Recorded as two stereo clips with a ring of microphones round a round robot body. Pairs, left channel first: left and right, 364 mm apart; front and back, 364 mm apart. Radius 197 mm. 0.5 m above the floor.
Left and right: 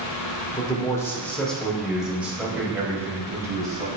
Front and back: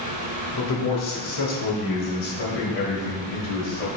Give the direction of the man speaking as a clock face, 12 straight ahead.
11 o'clock.